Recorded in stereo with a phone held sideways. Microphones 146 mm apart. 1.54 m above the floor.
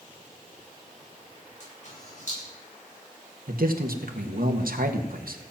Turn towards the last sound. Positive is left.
turn(degrees=-80)